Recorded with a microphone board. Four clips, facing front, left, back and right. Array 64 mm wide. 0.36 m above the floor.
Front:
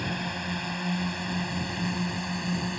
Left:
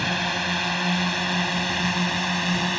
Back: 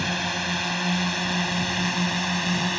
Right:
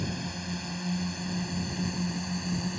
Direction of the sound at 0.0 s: 115° left.